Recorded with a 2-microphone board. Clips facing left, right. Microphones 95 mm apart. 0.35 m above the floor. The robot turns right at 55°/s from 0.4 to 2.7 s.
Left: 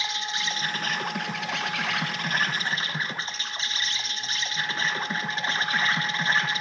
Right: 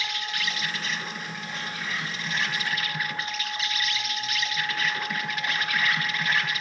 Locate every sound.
0.0 s an insect: 25° left, 0.9 m; by 6.6 s 150° left, 0.9 m